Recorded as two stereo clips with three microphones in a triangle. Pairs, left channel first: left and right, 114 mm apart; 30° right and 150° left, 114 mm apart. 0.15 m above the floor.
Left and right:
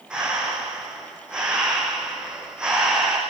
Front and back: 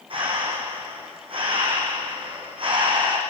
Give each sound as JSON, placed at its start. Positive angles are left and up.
{"t": 0.1, "sound": "breathing", "azimuth_deg": -175, "distance_m": 6.0}